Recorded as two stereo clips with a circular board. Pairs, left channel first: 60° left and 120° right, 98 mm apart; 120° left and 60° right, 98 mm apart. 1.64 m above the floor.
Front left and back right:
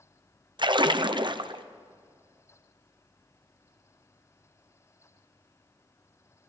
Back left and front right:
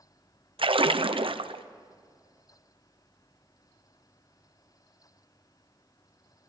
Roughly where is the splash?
Right.